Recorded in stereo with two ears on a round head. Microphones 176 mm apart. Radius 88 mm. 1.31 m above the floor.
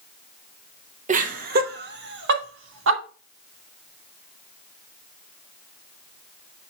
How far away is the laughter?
About 1.1 m.